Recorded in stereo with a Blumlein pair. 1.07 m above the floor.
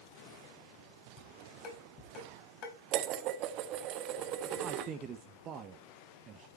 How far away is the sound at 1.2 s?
About 5 m.